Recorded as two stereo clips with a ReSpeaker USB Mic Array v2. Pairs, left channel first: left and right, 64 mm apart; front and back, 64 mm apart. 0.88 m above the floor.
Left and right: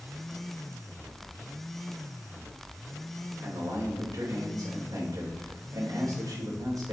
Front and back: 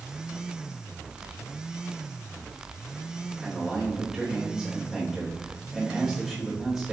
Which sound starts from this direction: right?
A man speaking, at 3.4 s.